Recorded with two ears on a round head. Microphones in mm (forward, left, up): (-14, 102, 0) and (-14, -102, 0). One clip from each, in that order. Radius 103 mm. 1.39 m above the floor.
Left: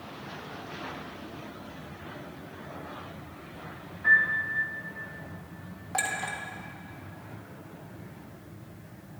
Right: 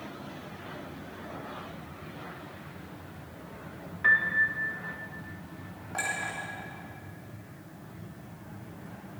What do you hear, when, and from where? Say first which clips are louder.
4.0 s a piano: left 1 dB; 60° right (ahead or behind), 1.9 m
5.9 s a clink: left 2 dB; 35° left (ahead or behind), 1.9 m